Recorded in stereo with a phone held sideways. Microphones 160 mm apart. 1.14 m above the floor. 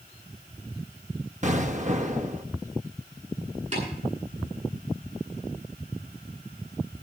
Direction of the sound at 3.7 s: 40° right (ahead or behind).